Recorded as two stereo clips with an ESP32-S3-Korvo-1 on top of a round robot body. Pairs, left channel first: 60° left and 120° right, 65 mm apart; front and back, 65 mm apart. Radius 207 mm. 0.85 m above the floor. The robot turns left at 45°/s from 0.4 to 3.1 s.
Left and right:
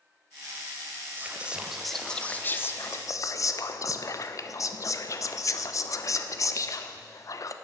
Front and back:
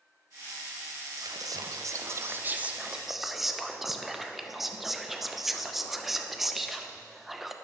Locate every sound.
1.2 s whispering: straight behind, 0.5 m; by 7.5 s 90° left, 0.5 m